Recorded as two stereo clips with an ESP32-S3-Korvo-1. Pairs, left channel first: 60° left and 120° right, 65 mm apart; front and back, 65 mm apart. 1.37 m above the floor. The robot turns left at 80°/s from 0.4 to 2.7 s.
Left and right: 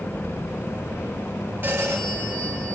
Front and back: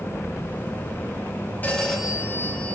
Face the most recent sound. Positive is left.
turn(degrees=-150)